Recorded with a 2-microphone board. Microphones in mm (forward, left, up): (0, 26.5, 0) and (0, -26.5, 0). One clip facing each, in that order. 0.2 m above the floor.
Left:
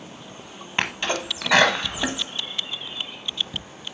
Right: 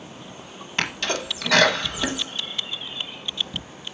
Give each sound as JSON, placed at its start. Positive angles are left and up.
{"t": 0.8, "sound": "a sneeze", "side_deg": 20, "distance_m": 1.0}